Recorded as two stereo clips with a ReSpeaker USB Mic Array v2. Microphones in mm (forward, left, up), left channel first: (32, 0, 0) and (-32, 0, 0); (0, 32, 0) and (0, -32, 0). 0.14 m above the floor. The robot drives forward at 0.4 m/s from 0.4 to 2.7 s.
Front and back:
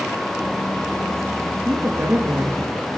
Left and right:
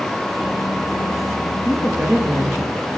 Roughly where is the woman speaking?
Behind right.